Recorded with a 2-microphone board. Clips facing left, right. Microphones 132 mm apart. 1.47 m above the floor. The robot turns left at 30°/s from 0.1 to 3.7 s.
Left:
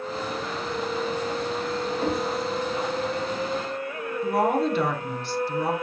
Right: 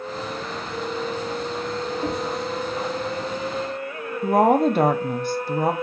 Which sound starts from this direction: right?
A woman speaking, at 4.2 s.